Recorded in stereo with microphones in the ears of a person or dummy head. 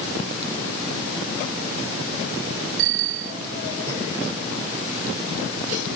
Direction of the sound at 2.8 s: 80° right.